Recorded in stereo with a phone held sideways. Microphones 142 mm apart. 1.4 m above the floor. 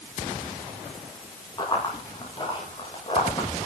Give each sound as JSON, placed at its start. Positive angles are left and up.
{"t": 1.6, "sound": "running footsteps", "side_deg": 30, "distance_m": 8.0}